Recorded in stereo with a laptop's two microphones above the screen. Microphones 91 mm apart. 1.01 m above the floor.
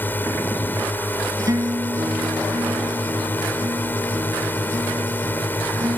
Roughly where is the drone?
Left.